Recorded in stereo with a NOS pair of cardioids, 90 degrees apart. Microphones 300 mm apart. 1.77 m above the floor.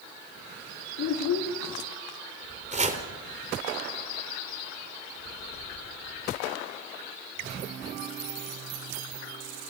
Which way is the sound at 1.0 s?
65° left.